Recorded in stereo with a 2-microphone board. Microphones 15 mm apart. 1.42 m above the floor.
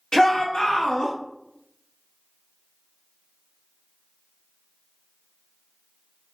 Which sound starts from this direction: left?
A shout, at 0.1 s.